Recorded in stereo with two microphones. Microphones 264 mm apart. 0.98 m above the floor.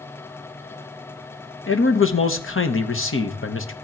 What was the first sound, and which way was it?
A man speaking, 50° left (ahead or behind).